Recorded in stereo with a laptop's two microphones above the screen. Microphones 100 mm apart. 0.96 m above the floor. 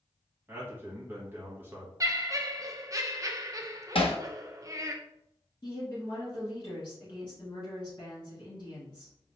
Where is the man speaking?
15° right (ahead or behind), 1.2 m.